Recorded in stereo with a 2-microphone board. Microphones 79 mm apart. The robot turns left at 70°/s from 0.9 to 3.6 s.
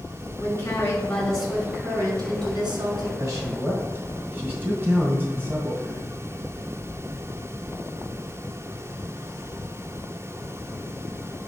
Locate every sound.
0.4 s a woman speaking: 35° left, 4 m; by 3.1 s 115° right, 4 m
3.2 s a man speaking: 50° right (ahead or behind), 2 m; by 6.0 s 25° right (ahead or behind), 2 m